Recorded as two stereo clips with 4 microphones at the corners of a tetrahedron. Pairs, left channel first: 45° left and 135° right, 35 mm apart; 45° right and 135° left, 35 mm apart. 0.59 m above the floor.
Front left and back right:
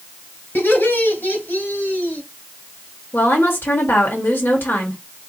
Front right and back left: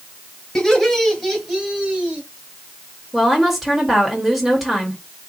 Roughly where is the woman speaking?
Ahead left.